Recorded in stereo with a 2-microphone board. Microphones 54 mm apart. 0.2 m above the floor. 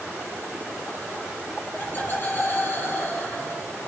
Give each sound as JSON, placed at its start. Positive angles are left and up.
{"t": 1.8, "sound": "laughter", "side_deg": 45, "distance_m": 1.8}